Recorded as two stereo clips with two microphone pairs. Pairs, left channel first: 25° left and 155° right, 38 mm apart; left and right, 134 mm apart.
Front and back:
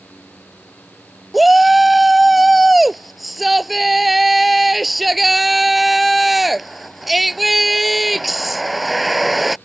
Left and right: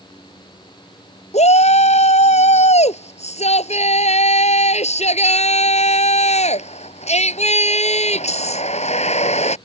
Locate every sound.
1.3 s a shout: 120° left